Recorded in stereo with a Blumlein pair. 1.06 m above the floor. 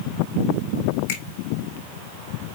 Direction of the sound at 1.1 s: 55° left.